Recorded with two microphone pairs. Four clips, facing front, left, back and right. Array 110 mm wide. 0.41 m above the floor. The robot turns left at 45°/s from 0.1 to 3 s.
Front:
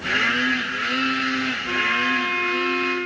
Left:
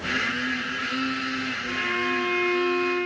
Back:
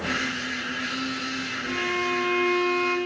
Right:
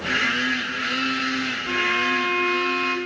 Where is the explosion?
No explosion in this recording.